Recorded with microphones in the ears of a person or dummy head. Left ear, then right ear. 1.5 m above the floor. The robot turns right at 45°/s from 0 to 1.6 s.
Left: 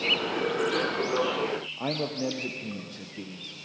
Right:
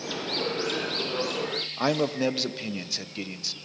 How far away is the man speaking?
About 0.9 m.